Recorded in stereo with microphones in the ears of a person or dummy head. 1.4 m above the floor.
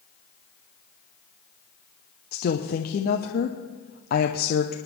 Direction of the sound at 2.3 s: 45° left (ahead or behind).